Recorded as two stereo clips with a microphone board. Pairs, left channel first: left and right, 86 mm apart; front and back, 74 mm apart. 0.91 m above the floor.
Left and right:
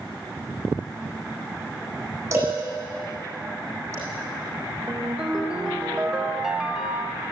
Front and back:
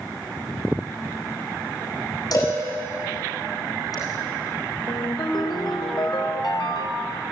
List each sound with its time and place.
2.3 s a cowbell: 30° right, 8.5 m
4.9 s a ringtone: 10° right, 2.5 m